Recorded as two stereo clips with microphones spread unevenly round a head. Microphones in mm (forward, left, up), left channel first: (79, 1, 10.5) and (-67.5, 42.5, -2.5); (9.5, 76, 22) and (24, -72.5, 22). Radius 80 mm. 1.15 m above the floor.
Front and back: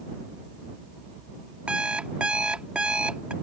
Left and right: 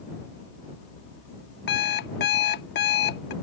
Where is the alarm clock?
80° left.